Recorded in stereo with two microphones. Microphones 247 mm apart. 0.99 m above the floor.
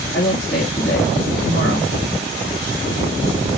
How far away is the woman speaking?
About 2 m.